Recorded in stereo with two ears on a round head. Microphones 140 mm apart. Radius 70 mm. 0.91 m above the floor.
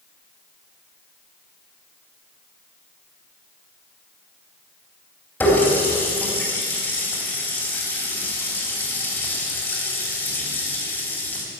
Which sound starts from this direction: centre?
A running tap, at 5.4 s.